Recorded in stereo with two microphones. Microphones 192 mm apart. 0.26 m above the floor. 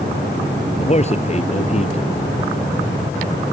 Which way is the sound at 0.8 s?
35° left (ahead or behind).